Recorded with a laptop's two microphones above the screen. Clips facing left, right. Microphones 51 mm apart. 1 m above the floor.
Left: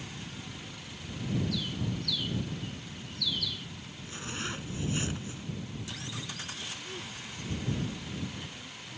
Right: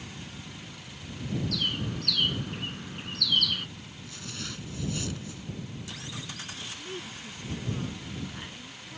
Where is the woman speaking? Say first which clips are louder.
Right 2 dB; 30° right (ahead or behind).